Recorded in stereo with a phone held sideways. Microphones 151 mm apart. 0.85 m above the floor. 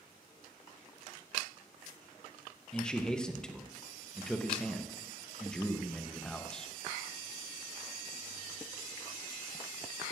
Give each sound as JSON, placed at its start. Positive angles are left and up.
{"t": 2.7, "sound": "a man speaking", "side_deg": 5, "distance_m": 0.8}